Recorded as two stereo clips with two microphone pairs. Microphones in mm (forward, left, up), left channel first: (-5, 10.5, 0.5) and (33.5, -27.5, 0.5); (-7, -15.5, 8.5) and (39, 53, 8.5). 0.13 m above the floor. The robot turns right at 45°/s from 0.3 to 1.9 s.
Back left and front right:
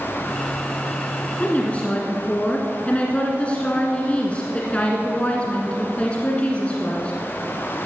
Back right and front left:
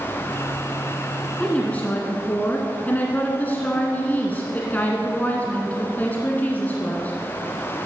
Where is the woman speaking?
160° left, 1.5 m; by 7.1 s 175° right, 1.5 m.